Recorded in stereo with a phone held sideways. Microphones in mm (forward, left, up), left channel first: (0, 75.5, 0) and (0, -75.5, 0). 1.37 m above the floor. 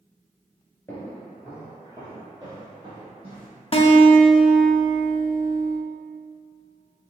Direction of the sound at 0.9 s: 15° left (ahead or behind).